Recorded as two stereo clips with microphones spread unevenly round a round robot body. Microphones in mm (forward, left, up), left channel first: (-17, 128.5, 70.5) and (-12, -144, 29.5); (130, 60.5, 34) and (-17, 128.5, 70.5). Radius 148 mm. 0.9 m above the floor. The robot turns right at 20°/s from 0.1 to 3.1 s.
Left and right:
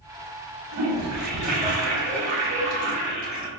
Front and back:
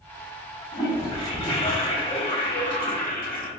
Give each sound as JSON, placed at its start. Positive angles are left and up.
{"t": 0.7, "sound": "a toilet flushing", "azimuth_deg": -100, "distance_m": 1.4}